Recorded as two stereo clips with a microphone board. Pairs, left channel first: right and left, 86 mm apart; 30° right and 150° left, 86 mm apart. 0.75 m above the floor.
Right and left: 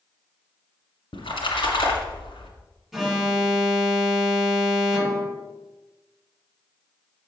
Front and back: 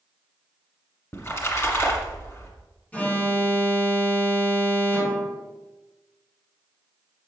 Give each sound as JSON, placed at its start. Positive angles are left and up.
{"t": 1.1, "sound": "a splash", "azimuth_deg": -85, "distance_m": 1.9}
{"t": 2.9, "sound": "an alarm", "azimuth_deg": 10, "distance_m": 1.1}